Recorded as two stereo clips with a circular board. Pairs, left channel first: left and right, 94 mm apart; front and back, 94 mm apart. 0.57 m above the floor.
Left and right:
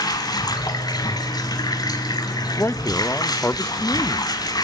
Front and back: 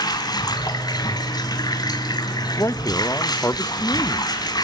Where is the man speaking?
40° left, 0.8 m.